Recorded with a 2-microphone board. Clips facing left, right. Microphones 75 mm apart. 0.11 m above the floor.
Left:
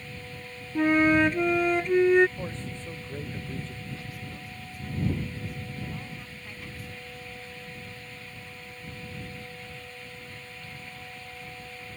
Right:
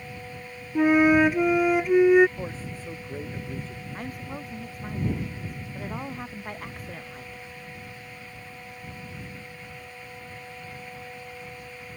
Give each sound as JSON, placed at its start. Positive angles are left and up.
{"t": 0.8, "sound": "a flute", "side_deg": -10}
{"t": 2.4, "sound": "a man speaking", "side_deg": -5}
{"t": 3.9, "sound": "a woman speaking", "side_deg": -50}